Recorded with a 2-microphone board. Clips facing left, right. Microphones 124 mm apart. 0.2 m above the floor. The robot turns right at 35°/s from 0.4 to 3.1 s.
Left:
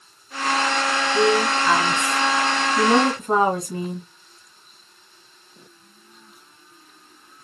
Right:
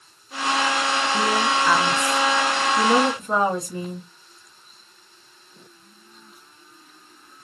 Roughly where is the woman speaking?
Ahead right.